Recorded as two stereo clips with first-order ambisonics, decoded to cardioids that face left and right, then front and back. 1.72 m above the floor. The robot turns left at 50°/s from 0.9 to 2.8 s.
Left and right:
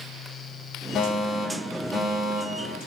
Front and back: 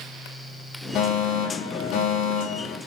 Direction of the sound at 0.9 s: 40° left.